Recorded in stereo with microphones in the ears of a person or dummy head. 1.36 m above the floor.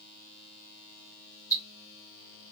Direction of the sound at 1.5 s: 15° left (ahead or behind).